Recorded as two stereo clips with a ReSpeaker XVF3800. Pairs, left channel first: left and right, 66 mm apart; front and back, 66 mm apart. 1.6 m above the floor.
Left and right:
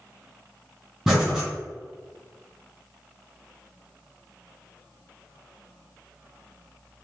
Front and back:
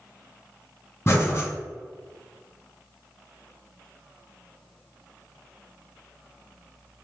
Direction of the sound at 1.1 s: 20° right.